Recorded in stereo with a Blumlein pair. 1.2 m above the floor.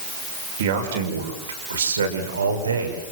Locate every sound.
0.6 s a man speaking: 55° right, 5.5 m; by 3.0 s 75° right, 5.5 m